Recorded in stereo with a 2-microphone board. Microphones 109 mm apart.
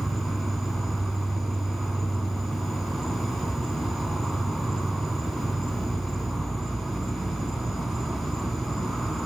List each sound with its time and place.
0.0 s an insect: centre (ahead or behind), 0.9 m